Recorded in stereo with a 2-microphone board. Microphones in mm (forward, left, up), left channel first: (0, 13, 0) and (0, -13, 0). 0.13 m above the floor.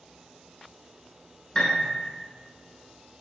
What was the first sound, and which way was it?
A piano, 30° left (ahead or behind).